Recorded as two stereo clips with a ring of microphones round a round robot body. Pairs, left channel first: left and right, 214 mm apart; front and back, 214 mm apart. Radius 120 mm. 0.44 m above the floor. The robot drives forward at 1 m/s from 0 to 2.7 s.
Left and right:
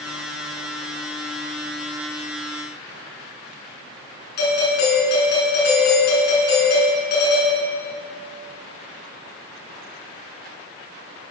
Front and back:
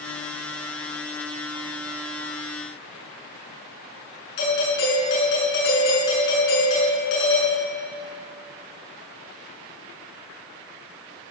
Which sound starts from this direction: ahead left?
A doorbell, at 4.4 s.